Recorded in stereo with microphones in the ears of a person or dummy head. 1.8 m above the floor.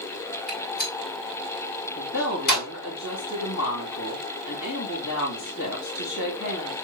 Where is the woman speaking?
70° left (ahead or behind), 3 m.